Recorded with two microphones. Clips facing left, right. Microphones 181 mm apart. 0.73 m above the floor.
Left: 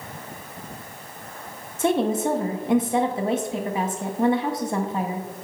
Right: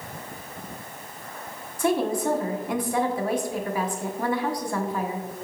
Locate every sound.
1.8 s a woman speaking: 20° left (ahead or behind), 0.5 m